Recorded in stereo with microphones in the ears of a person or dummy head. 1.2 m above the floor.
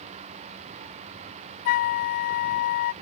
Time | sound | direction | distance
1.6 | a flute | 45° left (ahead or behind) | ?